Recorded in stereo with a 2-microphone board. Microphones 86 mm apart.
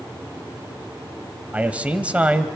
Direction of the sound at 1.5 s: 15° right (ahead or behind).